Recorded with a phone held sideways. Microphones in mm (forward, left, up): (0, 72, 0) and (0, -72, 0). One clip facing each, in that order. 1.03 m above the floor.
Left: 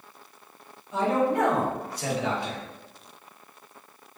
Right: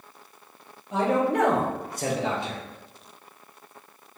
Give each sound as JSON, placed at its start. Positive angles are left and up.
{"t": 0.9, "sound": "a man speaking", "side_deg": -70, "distance_m": 1.1}